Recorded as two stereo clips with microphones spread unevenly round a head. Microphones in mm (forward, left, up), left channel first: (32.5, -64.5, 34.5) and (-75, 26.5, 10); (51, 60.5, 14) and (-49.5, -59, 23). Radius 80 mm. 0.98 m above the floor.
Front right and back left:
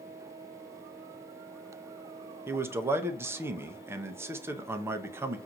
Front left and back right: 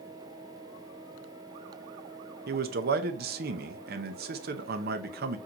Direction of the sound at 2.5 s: 150° right.